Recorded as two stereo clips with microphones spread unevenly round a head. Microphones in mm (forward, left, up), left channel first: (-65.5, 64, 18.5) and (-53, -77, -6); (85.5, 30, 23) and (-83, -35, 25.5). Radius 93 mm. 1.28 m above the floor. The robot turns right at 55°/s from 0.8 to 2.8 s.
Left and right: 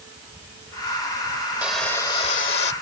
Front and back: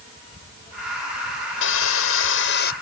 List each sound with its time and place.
1.6 s sawing: straight ahead; by 2.7 s 60° left